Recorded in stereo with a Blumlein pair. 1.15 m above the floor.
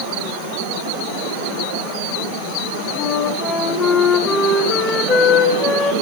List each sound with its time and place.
3.0 s a flute: 20° left, 0.7 m